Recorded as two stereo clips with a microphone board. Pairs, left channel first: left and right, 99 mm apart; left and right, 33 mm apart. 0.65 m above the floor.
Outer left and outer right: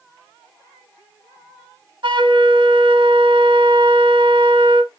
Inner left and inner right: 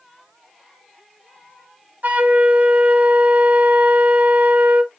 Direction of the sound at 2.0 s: 55° right (ahead or behind).